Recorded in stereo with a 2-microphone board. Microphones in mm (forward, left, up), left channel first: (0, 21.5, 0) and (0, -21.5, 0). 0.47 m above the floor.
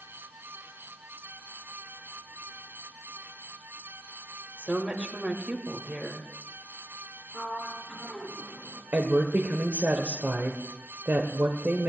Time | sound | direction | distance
4.6 | a woman speaking | 25° right (ahead or behind) | 2 m
7.3 | a sliding door | 10° right (ahead or behind) | 3 m
8.9 | a woman speaking | 50° right (ahead or behind) | 1.5 m